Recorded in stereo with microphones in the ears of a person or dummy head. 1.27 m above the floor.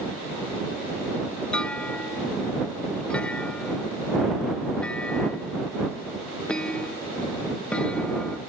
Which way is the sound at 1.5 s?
5° left (ahead or behind).